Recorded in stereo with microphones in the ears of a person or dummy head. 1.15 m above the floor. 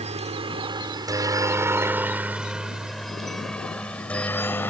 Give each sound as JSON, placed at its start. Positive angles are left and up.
{"t": 0.0, "sound": "a helicopter", "side_deg": -30}